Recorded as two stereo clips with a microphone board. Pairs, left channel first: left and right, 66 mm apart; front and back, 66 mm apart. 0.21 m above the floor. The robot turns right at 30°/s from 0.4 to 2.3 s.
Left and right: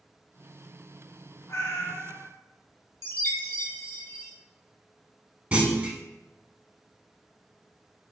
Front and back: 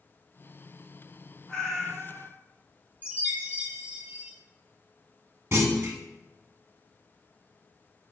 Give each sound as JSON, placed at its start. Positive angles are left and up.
{"t": 1.5, "sound": "a cat meowing", "azimuth_deg": 75, "distance_m": 0.7}
{"t": 3.0, "sound": "a chime", "azimuth_deg": 120, "distance_m": 0.6}
{"t": 5.5, "sound": "a clunk", "azimuth_deg": -150, "distance_m": 0.6}